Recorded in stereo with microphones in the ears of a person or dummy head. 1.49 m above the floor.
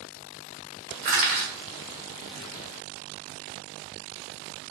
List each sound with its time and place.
1.0 s crushing: 25° right (ahead or behind), 0.6 m